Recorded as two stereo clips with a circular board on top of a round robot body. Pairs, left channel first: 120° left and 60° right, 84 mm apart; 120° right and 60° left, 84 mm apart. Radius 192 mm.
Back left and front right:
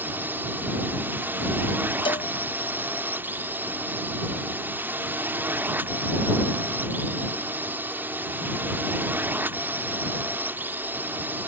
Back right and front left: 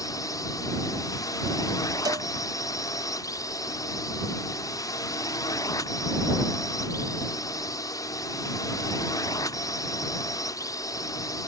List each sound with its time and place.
0.0 s a drone: 120° right
2.0 s a cowbell: 100° left